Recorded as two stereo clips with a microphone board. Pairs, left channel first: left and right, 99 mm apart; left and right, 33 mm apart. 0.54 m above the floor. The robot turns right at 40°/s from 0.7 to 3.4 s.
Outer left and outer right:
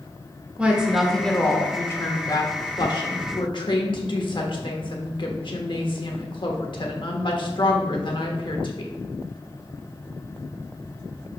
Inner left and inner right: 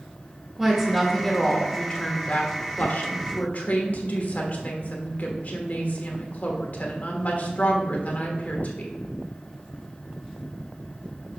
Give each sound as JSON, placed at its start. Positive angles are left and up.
{"t": 0.6, "sound": "a woman speaking", "azimuth_deg": -15, "distance_m": 1.3}